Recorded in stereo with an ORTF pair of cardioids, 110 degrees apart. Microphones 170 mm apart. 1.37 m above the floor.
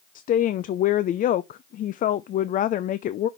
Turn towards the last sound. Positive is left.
turn(degrees=50)